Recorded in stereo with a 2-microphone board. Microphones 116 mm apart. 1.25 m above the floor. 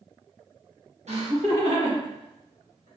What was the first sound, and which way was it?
Laughter, 70° right (ahead or behind).